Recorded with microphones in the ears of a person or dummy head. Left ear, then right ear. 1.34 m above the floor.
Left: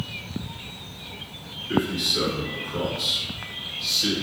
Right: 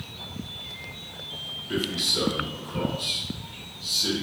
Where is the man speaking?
10° right (ahead or behind), 1.3 m; by 4.2 s 55° left (ahead or behind), 1.3 m.